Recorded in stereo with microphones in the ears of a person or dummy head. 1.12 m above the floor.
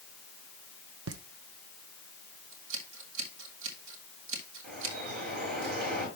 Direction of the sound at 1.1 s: 70° right (ahead or behind).